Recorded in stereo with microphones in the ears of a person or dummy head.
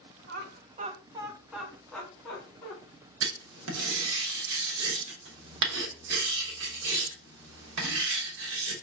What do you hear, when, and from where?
0.3 s laughter: 55° right (ahead or behind), 1.1 m; by 2.8 s 25° left (ahead or behind), 2.0 m
3.2 s writing: 75° right (ahead or behind), 1.0 m